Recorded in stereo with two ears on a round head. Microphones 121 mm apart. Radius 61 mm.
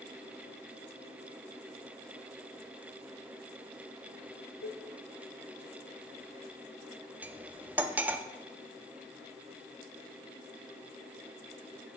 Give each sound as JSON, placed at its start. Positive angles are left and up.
{"t": 4.6, "sound": "dishes clattering", "side_deg": 80, "distance_m": 0.9}
{"t": 7.2, "sound": "cutlery clinking", "side_deg": -15, "distance_m": 0.5}